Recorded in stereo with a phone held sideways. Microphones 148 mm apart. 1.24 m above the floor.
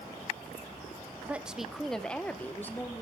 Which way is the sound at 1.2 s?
10° right (ahead or behind).